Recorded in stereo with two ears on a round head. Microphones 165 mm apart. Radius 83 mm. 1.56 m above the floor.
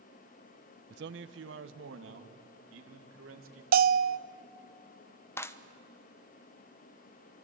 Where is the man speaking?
60° right (ahead or behind), 0.7 m; by 3.6 s 85° right, 4 m.